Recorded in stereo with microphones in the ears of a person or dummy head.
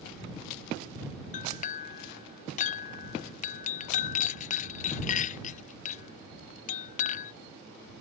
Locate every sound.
1.3 s a clink: 35° left (ahead or behind)